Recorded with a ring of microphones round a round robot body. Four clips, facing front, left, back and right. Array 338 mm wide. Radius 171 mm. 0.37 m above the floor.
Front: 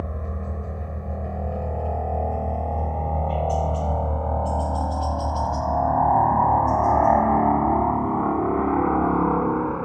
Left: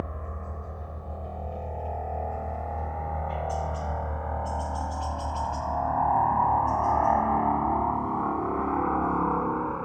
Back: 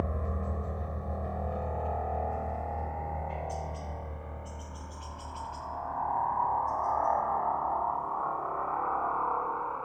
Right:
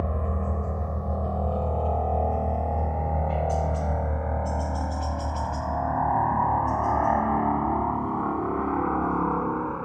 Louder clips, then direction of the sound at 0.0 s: Right 7 dB, front 2 dB; 80° right.